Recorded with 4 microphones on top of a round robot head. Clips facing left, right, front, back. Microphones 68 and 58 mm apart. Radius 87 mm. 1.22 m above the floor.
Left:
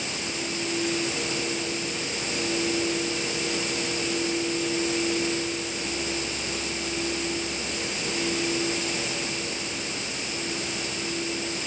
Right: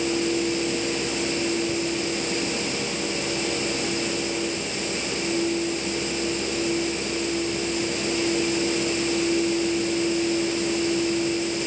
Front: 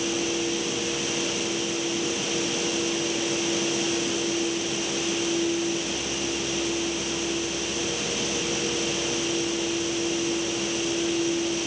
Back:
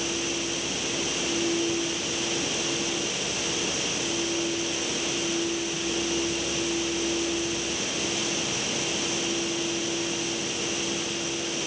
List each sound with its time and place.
Only background noise.